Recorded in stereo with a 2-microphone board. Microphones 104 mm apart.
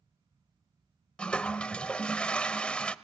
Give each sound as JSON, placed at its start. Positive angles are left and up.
{"t": 1.2, "sound": "a toilet flushing", "side_deg": 10, "distance_m": 0.6}